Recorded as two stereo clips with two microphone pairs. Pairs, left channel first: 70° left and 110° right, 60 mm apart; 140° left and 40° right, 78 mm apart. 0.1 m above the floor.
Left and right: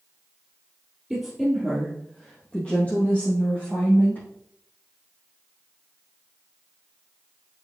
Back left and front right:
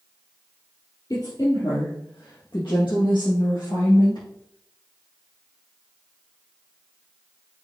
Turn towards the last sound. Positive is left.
turn(degrees=120)